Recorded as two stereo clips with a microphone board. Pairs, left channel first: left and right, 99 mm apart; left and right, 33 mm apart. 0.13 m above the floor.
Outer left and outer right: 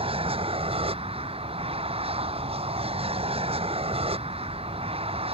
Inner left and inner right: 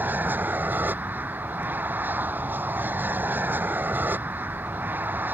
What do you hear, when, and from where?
0.0 s an aircraft: 75° right (ahead or behind)